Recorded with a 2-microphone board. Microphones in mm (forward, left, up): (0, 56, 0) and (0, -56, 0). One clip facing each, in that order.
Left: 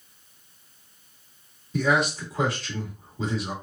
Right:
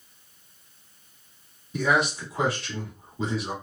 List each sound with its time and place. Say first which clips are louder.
1.7 s a man speaking: left 1 dB; 5° right (ahead or behind), 1.8 m